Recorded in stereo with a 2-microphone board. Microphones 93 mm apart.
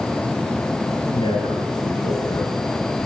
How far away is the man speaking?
About 5 m.